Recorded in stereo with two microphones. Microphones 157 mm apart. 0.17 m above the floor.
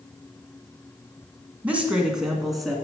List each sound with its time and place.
1.6 s a woman speaking: 10° right (ahead or behind), 1.6 m; by 2.8 s centre (ahead or behind), 2 m